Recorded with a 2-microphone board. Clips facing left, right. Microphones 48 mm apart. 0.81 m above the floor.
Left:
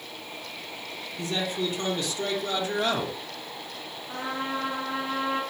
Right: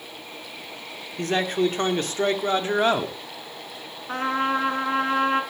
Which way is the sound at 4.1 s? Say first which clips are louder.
Right 8 dB; 50° right (ahead or behind).